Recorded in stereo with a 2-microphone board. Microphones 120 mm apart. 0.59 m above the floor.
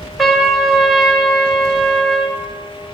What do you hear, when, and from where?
0.2 s a trumpet: centre (ahead or behind), 2 m